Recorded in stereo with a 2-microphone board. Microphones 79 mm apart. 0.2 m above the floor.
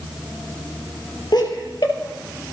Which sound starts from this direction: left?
Laughter, at 1.3 s.